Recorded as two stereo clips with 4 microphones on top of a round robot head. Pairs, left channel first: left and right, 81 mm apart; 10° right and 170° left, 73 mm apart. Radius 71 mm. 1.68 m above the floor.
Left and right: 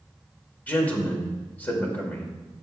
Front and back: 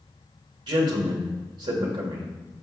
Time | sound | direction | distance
0.7 | a man speaking | 160° left | 2.0 m